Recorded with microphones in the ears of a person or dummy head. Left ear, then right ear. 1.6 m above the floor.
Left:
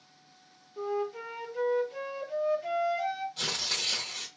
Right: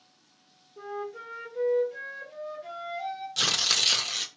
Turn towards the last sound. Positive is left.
turn(degrees=-40)  # may be behind; listen again after turning